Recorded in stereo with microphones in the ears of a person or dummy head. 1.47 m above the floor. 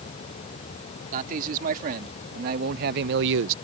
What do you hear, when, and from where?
1.1 s a man speaking: 45° right (ahead or behind); by 3.5 s 75° right (ahead or behind)